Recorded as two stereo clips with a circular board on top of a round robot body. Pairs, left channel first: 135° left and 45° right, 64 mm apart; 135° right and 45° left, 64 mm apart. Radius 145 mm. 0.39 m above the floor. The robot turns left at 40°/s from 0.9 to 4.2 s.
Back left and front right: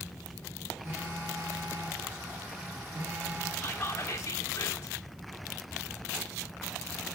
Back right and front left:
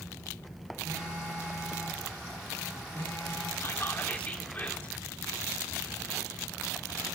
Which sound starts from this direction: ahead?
A phone buzzing, at 0.8 s.